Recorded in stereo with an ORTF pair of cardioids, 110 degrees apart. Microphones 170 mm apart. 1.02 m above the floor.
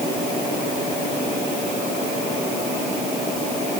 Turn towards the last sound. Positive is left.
No sound to turn to.